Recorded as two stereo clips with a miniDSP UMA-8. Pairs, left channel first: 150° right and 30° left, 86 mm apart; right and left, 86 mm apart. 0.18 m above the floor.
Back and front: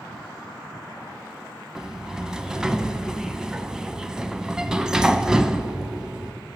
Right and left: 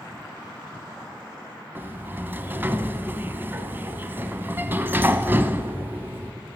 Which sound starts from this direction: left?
A sliding door, at 1.8 s.